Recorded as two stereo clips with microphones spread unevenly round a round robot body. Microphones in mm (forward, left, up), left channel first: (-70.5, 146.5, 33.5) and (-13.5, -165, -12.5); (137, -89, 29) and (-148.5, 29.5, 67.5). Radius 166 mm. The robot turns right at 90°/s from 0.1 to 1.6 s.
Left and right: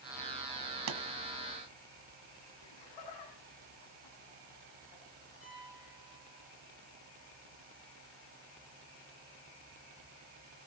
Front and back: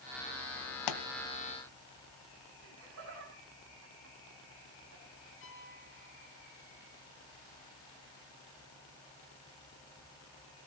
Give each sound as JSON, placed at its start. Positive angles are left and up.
{"t": 0.9, "sound": "a pop", "azimuth_deg": -30, "distance_m": 1.1}
{"t": 2.6, "sound": "laughter", "azimuth_deg": 110, "distance_m": 5.0}
{"t": 5.4, "sound": "a piano", "azimuth_deg": 30, "distance_m": 5.5}